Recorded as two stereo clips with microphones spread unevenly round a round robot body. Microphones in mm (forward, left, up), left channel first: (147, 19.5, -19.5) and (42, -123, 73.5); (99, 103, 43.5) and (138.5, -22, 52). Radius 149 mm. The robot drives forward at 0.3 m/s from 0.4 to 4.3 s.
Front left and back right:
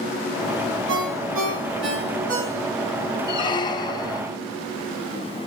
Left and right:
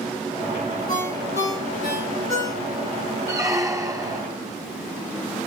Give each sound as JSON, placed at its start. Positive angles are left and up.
{"t": 0.9, "sound": "a ringtone", "azimuth_deg": -115, "distance_m": 3.5}
{"t": 3.3, "sound": "a squeak", "azimuth_deg": 0, "distance_m": 1.0}